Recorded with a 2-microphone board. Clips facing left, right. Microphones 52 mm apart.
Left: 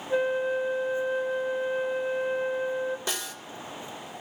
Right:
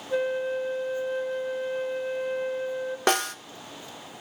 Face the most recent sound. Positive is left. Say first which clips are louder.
# right 10 dB
turn(degrees=-55)  # may be behind; listen again after turning